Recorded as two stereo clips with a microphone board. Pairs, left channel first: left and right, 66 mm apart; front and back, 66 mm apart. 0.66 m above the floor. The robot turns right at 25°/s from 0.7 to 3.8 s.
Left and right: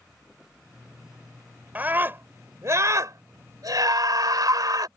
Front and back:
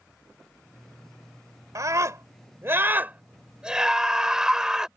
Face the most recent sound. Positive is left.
turn(degrees=-105)